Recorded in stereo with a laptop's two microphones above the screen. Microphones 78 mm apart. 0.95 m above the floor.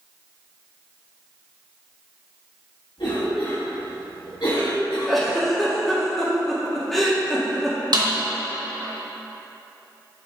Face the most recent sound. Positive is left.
turn(degrees=-65)  # may be behind; listen again after turning